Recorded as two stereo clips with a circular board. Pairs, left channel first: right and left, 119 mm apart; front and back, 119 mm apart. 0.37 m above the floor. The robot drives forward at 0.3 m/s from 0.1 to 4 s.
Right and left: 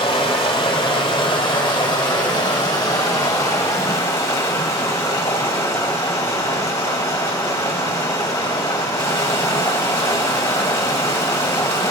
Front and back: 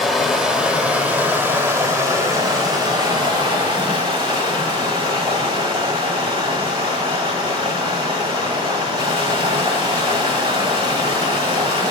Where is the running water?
90° right, 1.2 m; by 11.9 s 145° right, 1.7 m.